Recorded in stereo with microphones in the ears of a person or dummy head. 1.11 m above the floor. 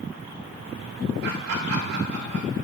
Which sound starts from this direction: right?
Laughter, at 1.2 s.